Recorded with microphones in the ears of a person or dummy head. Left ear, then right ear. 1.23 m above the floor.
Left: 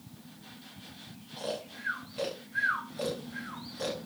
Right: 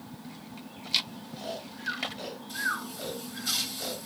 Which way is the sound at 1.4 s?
25° left (ahead or behind).